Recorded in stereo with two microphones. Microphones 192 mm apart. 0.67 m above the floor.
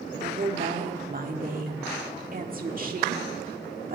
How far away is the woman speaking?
About 1.6 m.